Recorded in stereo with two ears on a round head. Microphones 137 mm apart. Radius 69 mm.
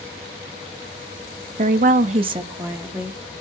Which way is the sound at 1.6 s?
50° right (ahead or behind).